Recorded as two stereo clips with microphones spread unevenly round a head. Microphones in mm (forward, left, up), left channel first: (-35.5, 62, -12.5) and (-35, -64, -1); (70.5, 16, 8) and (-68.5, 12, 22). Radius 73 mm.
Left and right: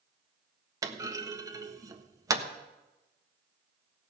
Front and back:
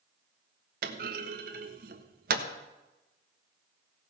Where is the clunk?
150° right, 1.3 m.